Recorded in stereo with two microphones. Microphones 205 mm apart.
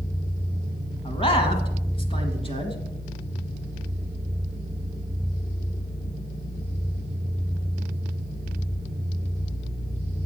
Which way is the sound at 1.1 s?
25° left (ahead or behind).